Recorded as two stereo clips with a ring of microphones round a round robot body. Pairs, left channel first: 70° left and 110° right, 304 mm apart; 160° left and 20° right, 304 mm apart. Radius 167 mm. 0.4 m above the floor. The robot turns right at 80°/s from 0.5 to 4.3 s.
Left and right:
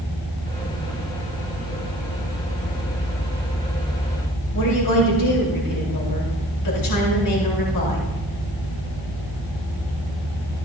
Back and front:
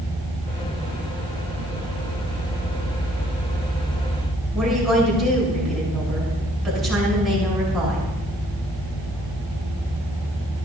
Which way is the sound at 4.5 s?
70° left.